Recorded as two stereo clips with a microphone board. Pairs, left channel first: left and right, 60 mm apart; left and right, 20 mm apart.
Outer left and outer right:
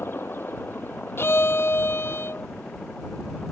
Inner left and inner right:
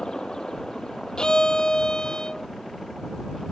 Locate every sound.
0.0 s a helicopter: 35° left (ahead or behind); by 3.5 s 20° left (ahead or behind)
1.2 s a violin: 40° left (ahead or behind)